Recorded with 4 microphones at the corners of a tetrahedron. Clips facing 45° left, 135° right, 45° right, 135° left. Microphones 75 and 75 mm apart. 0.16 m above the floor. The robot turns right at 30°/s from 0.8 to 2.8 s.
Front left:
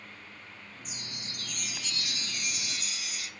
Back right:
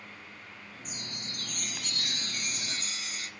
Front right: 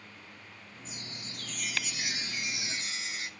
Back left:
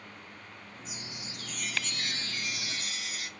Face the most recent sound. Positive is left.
turn(degrees=-100)